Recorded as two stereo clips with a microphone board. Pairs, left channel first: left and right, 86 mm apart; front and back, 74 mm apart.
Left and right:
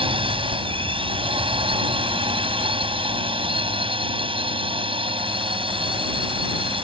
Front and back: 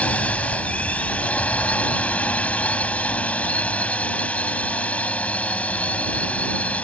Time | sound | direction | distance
0.0 | a drone | 70° right | ?